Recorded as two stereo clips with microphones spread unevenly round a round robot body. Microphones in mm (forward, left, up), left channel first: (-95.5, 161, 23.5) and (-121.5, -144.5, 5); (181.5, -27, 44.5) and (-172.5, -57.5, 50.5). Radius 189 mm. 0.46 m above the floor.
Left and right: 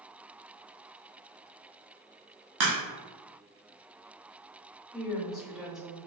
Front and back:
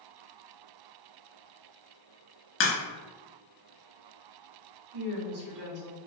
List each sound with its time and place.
2.6 s a crack: 55° right, 1.1 m
4.9 s a woman speaking: straight behind, 1.8 m